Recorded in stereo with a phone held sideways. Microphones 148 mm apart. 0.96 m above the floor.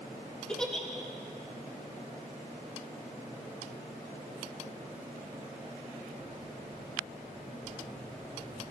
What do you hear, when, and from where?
0.5 s a giggle: 5° left (ahead or behind), 1.5 m